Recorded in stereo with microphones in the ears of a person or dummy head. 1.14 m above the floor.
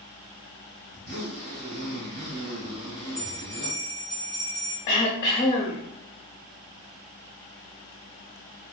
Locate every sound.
0.9 s a zipper: 35° right (ahead or behind), 1.0 m
3.1 s a bell: 50° right (ahead or behind), 1.1 m
4.9 s throat clearing: 20° left (ahead or behind), 0.6 m